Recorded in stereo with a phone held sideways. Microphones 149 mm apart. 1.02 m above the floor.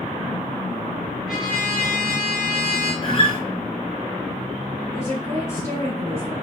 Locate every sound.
1.3 s a trumpet: 25° left (ahead or behind), 1.6 m
3.0 s a guitar: 40° left (ahead or behind), 1.0 m
4.9 s a woman speaking: 20° left (ahead or behind), 2.0 m